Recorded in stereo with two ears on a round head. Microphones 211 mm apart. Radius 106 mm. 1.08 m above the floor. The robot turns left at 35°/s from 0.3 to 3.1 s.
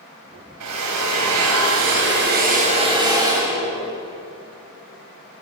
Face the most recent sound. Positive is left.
turn(degrees=-160)